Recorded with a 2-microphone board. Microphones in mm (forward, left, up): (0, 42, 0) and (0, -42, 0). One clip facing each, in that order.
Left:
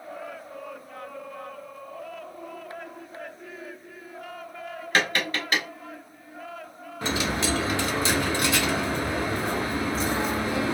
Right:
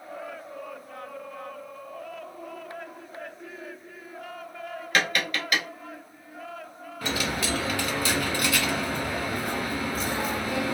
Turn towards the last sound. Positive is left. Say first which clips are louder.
# left 2 dB
turn(degrees=30)  # may be behind; listen again after turning